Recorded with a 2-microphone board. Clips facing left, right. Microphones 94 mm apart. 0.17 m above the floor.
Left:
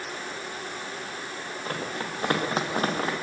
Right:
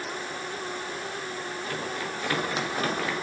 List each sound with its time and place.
1.6 s running footsteps: 45° left (ahead or behind), 5.5 m; by 3.1 s 35° left (ahead or behind), 5 m